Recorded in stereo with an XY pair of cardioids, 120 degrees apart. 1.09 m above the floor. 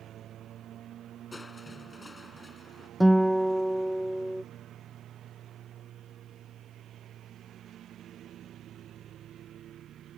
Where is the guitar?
10° right.